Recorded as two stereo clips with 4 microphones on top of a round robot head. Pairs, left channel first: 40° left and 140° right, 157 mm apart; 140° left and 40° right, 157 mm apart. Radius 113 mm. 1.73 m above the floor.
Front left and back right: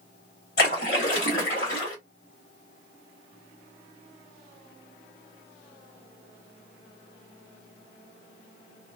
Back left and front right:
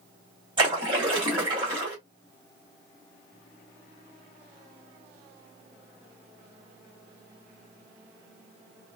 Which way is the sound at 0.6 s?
15° left.